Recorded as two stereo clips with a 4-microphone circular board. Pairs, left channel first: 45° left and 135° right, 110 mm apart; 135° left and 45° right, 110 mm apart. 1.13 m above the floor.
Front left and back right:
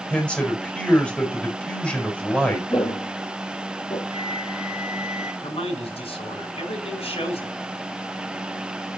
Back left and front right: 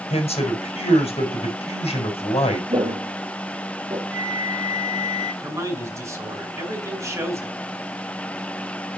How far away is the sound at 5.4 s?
About 5.5 m.